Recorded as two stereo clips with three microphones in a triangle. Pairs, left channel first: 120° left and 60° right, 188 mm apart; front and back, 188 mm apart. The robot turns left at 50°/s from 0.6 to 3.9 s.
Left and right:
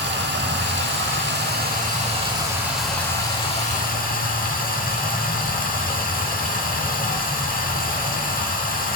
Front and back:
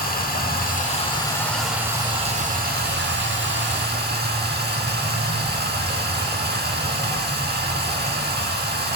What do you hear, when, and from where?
0.0 s running water: 40° right, 0.9 m; by 9.0 s 155° left, 0.9 m